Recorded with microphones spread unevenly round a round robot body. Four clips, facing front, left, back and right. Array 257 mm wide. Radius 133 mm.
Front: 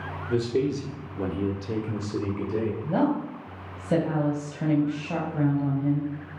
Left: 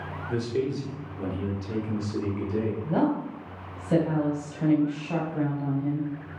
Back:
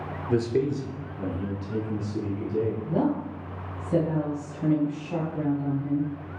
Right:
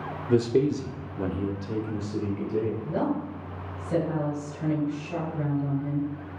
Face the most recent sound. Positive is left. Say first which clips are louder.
# left 3 dB, front 1 dB
turn(degrees=25)